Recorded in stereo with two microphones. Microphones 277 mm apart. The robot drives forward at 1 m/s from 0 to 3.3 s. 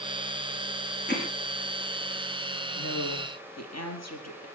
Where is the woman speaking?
65° left (ahead or behind), 3.5 m.